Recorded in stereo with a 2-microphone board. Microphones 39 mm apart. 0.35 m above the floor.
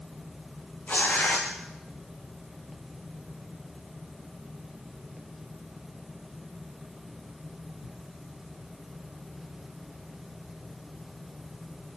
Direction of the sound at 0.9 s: 40° left (ahead or behind).